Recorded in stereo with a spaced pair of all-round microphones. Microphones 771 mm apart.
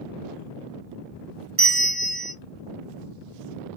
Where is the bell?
30° right (ahead or behind), 0.7 m.